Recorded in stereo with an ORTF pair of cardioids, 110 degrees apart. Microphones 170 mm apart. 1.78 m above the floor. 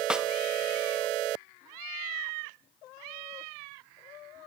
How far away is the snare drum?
About 0.7 m.